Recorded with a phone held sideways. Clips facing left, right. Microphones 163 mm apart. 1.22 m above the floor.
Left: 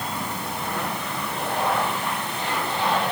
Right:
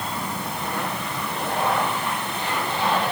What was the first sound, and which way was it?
Only background noise.